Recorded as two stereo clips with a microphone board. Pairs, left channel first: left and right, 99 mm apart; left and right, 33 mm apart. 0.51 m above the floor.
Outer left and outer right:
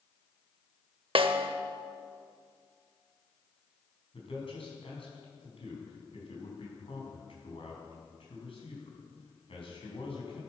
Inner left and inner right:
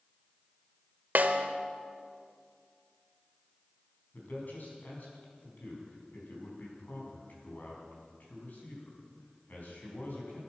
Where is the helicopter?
No helicopter in this recording.